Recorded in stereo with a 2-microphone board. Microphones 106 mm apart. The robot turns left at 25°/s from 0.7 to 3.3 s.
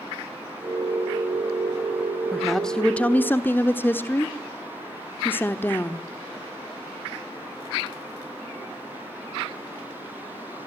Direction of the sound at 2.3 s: Centre (ahead or behind).